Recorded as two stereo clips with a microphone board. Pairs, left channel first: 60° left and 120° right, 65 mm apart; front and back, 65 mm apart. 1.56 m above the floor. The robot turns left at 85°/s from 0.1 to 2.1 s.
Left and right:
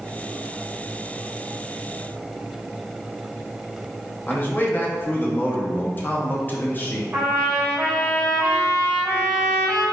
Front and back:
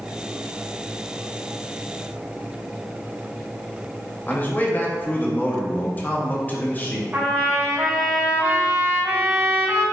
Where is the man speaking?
35° left, 0.5 m.